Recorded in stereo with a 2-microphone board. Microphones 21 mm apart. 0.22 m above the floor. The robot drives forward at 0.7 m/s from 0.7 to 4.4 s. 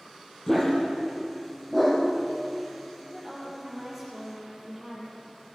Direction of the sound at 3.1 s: 15° right (ahead or behind).